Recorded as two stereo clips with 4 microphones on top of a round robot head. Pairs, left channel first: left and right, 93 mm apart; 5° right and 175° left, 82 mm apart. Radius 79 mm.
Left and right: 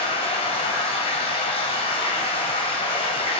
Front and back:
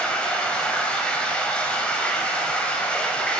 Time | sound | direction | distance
0.0 | running water | 75° left | 2.5 m